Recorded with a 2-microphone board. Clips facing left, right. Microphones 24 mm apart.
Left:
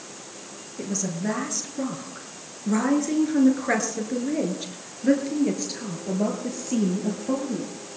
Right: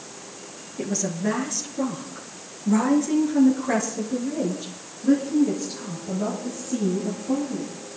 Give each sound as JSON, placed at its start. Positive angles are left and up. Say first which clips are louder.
{"t": 0.8, "sound": "a woman speaking", "louder": "right 2 dB", "side_deg": -15, "distance_m": 4.0}